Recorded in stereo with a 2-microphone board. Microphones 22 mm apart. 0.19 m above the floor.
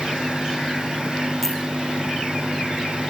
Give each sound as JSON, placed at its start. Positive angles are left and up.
{"t": 1.4, "sound": "a clink", "side_deg": 10, "distance_m": 6.5}